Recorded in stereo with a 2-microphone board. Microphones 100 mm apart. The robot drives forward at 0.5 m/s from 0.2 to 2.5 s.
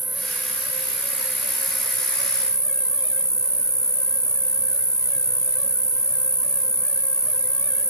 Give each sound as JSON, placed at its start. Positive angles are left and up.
{"t": 0.0, "sound": "an insect", "side_deg": 10, "distance_m": 2.0}